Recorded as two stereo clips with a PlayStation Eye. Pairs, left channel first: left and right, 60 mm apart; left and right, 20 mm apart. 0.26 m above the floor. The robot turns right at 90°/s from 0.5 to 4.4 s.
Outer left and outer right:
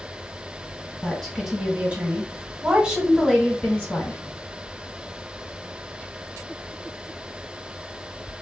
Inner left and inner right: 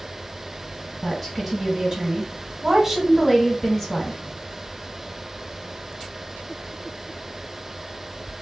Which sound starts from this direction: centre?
A woman speaking, at 1.0 s.